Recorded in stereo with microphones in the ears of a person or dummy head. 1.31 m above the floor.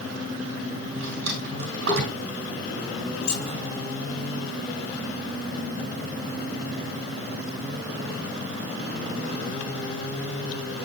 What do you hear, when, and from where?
0.9 s a drawer: 65° right (ahead or behind), 3.5 m
3.2 s keys jangling: 70° left (ahead or behind), 4 m